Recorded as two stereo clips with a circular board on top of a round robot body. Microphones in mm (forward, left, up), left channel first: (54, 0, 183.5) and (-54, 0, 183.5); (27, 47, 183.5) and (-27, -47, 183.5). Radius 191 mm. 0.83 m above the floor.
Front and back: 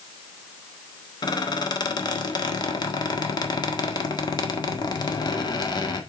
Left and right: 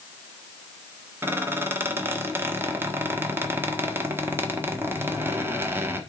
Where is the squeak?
50° right, 1.4 m.